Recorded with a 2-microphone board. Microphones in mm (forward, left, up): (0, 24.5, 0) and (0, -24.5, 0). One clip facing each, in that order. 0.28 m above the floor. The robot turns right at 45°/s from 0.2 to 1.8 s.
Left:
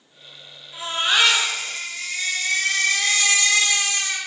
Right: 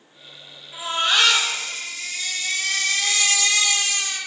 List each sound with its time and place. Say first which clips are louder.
0.7 s a baby crying: even; 10° right, 3.5 m; by 4.2 s 40° left, 3.5 m